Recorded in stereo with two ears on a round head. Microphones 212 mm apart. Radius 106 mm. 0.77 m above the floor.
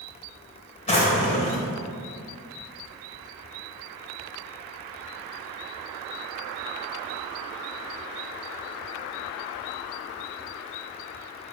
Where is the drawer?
30° left (ahead or behind), 1.6 m.